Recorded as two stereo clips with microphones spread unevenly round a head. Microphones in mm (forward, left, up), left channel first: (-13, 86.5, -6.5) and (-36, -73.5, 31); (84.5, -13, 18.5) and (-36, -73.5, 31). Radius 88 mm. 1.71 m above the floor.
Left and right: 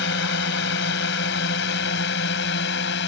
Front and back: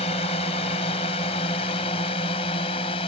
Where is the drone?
85° left.